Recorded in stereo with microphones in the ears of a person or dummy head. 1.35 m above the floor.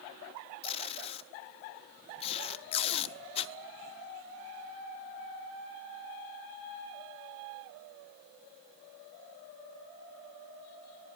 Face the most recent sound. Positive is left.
turn(degrees=30)  # may be behind; listen again after turning